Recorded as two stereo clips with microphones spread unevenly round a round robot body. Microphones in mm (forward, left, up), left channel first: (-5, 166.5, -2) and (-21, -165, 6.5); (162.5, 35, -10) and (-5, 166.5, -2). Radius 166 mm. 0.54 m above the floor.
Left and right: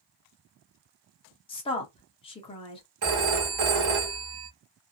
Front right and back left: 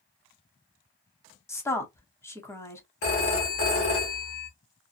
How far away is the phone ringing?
About 1.1 m.